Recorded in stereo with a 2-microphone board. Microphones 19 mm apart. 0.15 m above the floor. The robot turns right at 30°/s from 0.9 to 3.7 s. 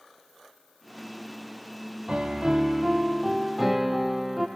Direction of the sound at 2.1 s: 50° right.